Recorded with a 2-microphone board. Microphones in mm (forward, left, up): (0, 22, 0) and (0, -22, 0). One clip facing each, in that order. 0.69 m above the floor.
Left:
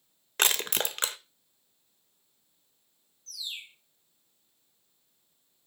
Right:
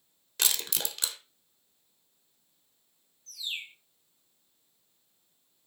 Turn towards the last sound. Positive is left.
turn(degrees=-35)  # may be behind; listen again after turning